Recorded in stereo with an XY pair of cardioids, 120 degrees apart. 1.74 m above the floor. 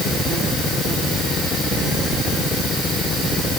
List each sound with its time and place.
Only background noise.